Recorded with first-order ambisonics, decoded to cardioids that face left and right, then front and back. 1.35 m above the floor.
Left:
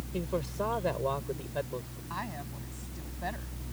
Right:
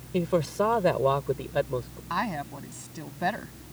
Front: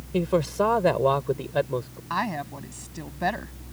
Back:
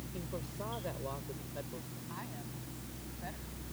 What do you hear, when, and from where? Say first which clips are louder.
0.1 s a man speaking: right 8 dB, front 21 dB; 30° right
2.1 s a woman speaking: right 9 dB, front 20 dB; 30° right